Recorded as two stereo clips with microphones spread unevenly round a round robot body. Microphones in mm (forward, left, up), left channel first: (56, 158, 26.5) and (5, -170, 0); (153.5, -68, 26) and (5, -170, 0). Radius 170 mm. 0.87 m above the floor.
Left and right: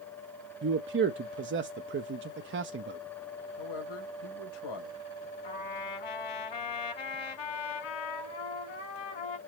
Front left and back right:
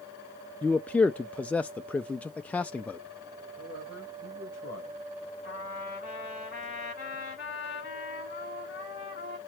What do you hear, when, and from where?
0.6 s a man speaking: 55° right, 0.6 m
3.6 s a man speaking: 105° left, 3 m
5.4 s a trumpet: 100° left, 4 m